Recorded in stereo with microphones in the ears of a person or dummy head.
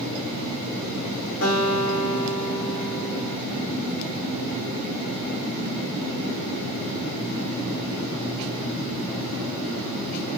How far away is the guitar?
About 4.5 m.